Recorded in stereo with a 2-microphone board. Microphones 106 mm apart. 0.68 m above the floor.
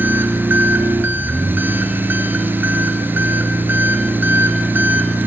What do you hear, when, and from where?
0.0 s an engine running: 20° right (ahead or behind), 2.5 m